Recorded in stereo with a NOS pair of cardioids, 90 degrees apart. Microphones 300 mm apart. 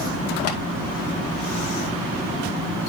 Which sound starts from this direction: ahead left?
Tapping, at 0.5 s.